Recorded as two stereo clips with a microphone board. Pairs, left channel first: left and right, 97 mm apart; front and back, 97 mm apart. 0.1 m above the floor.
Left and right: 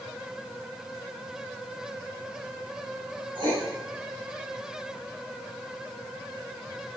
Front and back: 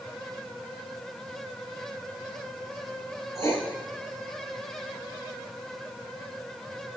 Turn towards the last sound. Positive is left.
turn(degrees=-60)